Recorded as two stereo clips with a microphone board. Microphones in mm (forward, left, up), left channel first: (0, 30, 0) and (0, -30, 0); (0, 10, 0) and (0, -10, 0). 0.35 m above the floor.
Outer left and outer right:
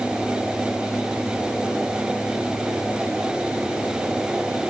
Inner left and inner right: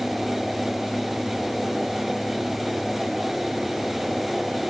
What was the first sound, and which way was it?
Only background noise.